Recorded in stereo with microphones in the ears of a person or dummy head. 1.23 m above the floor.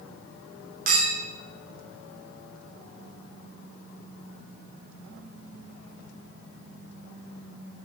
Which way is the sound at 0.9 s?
55° right (ahead or behind).